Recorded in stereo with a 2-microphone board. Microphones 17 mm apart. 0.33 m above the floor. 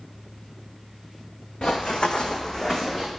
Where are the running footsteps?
60° left (ahead or behind), 1.3 m; by 3.1 s 5° left (ahead or behind), 1.4 m.